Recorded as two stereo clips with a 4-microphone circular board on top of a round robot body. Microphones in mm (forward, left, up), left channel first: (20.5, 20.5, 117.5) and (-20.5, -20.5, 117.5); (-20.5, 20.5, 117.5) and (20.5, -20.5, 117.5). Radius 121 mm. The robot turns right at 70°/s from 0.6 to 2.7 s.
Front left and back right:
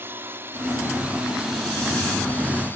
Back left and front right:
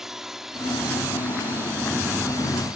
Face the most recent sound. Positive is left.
turn(degrees=20)